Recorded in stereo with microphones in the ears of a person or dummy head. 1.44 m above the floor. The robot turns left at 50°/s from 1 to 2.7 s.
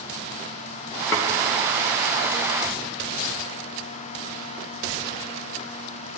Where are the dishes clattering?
10° left (ahead or behind), 0.5 m; by 1.3 s 5° left (ahead or behind), 0.5 m.